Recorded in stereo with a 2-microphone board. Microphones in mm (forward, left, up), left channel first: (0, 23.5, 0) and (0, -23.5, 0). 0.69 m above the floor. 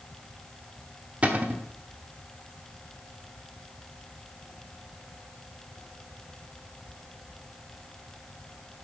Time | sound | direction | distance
1.2 | a cupboard door | 30° right (ahead or behind) | 1.0 m